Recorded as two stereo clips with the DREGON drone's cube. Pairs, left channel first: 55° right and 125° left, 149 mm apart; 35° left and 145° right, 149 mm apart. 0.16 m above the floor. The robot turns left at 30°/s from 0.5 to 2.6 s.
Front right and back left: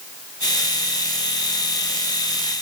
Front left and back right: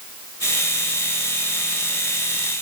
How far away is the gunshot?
No gunshot in this recording.